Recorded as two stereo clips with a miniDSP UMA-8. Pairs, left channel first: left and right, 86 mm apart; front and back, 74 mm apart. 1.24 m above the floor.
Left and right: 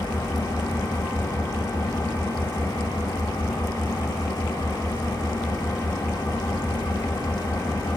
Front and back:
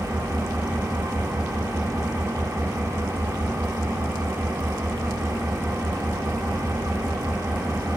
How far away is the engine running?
About 3 m.